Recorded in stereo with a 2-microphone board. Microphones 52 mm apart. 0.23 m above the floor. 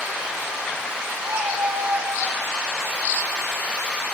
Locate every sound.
1.2 s a cat meowing: 75° right (ahead or behind), 3.5 m; by 2.4 s 80° right, 5 m